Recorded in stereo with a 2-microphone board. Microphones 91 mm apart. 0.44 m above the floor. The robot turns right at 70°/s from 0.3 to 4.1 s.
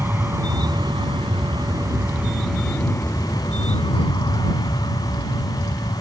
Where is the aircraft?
155° right; by 6.0 s 110° left.